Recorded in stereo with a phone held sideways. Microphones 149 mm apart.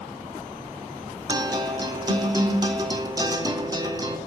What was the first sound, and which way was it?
A guitar, 25° right (ahead or behind).